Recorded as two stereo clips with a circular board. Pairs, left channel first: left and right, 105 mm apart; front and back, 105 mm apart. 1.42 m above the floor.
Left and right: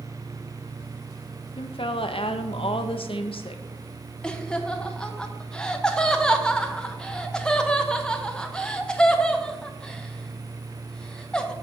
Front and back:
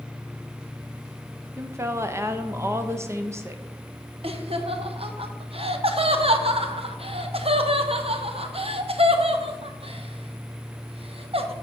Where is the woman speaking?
115° left, 0.7 m.